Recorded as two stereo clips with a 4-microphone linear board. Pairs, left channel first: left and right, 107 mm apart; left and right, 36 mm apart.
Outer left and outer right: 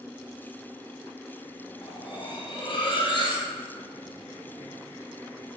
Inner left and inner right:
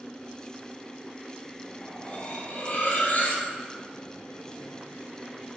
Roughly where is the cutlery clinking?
Left.